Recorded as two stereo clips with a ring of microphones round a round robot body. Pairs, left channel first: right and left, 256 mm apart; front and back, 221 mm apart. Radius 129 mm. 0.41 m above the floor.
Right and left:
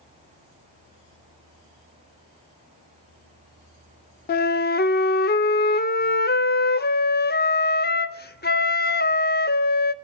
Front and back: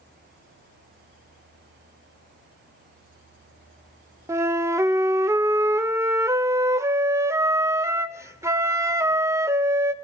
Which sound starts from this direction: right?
A flute, at 4.3 s.